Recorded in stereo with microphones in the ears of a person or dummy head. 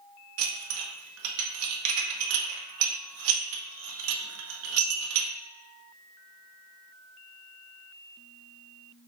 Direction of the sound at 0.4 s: 80° right.